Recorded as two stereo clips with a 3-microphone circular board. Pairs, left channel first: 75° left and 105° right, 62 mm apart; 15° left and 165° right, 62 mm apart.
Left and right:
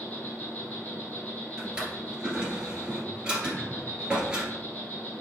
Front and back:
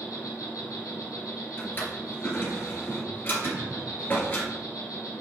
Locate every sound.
0.0 s an insect: 15° left, 2 m
1.6 s a drawer: 35° right, 1.7 m
3.4 s throat clearing: 175° left, 1.0 m